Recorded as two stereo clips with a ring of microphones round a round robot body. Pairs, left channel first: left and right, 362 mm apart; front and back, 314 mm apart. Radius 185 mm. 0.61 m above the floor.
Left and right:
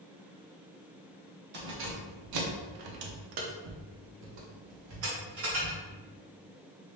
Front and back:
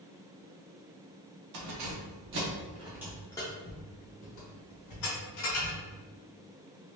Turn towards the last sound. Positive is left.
turn(degrees=-35)